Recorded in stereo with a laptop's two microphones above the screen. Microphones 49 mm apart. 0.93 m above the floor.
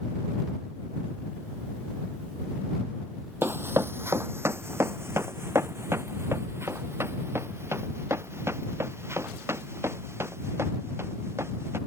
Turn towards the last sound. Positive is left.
turn(degrees=-65)  # may be behind; listen again after turning